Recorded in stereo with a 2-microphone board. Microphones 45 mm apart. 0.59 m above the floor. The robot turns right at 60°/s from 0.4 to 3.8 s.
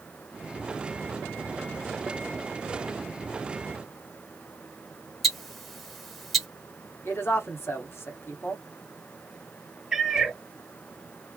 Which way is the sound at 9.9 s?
15° right (ahead or behind).